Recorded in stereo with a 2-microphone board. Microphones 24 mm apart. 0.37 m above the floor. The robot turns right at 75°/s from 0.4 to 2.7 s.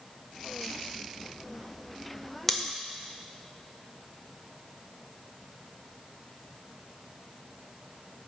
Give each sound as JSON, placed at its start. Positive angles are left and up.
{"t": 2.5, "sound": "scissors", "side_deg": 10, "distance_m": 0.8}